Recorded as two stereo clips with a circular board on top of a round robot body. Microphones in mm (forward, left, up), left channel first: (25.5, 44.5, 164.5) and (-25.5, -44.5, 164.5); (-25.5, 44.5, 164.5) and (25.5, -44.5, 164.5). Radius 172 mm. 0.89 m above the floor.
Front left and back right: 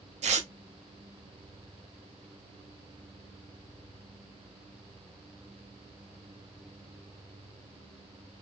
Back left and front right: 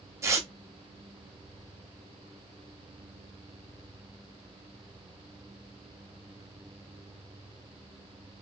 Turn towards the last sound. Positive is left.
turn(degrees=-125)